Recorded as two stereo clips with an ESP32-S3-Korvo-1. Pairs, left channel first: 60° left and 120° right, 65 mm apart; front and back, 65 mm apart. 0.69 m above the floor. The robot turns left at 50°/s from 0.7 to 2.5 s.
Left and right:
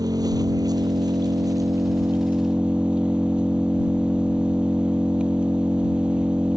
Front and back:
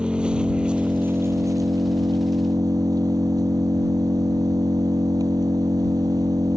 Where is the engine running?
105° right; by 6.6 s 165° left.